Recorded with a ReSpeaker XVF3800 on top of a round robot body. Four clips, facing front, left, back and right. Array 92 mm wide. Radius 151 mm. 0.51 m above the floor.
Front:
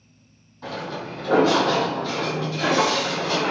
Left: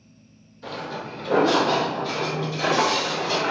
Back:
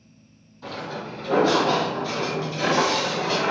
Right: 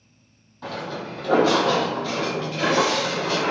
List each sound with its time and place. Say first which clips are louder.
0.6 s footsteps: right 1 dB, front 2 dB; 70° right, 1.6 m; by 3.5 s 150° right, 0.9 m